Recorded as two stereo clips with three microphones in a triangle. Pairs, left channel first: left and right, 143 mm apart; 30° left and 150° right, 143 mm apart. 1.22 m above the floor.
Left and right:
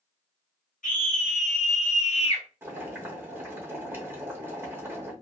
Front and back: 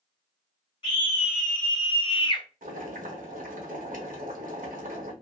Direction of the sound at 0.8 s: 80° left.